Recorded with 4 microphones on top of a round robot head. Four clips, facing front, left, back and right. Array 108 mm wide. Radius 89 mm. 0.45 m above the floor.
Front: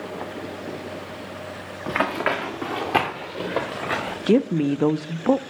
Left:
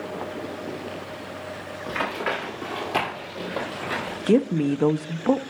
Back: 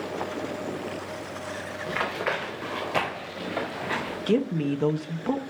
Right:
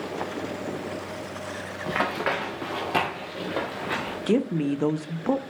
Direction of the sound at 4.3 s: 25° left.